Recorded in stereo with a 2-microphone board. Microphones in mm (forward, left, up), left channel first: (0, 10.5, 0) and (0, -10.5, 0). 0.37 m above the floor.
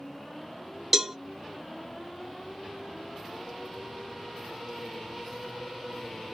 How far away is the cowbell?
About 0.6 m.